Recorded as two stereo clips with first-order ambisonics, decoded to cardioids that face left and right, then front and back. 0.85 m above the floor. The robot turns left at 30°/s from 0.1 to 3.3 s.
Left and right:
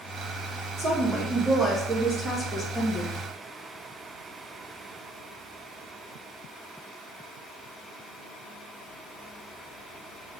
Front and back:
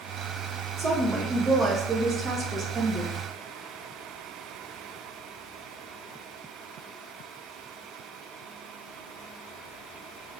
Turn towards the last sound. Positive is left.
turn(degrees=165)